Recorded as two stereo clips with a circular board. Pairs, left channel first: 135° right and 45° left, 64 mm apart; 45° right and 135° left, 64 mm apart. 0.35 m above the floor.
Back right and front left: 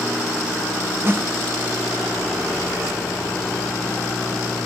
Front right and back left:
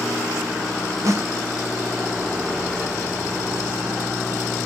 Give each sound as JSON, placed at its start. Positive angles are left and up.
{"t": 1.1, "sound": "a snare drum", "azimuth_deg": 100, "distance_m": 1.4}